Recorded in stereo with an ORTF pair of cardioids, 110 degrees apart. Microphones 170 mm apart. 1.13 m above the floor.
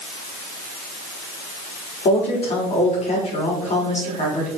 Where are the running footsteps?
No running footsteps in this recording.